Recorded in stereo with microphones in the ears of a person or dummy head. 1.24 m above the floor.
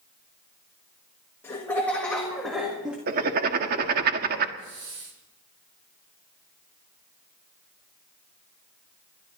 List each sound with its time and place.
1.4 s laughter: 15° left (ahead or behind), 1.7 m; by 3.0 s 5° right (ahead or behind), 2 m
3.1 s writing: 50° right (ahead or behind), 1.5 m
4.6 s a hiss: 65° right (ahead or behind), 4 m